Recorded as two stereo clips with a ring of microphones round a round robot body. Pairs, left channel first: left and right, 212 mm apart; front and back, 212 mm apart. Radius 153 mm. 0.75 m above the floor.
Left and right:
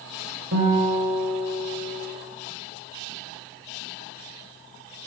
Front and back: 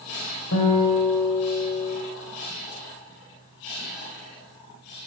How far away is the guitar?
About 2.5 m.